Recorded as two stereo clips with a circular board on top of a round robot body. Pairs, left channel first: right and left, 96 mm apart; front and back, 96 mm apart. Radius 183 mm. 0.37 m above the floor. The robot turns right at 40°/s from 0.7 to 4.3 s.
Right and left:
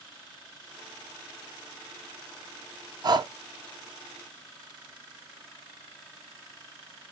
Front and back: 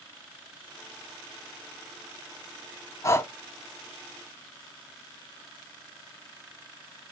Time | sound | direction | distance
3.0 | breathing | 55° left | 0.6 m